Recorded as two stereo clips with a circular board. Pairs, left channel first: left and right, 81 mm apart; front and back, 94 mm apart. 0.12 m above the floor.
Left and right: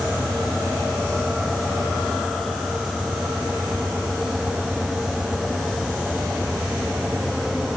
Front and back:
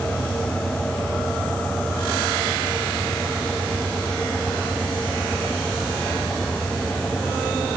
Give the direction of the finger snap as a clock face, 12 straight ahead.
I don't hear a finger snap.